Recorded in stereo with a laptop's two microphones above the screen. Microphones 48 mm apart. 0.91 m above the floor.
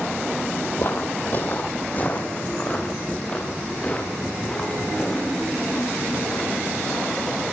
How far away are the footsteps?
About 1.3 m.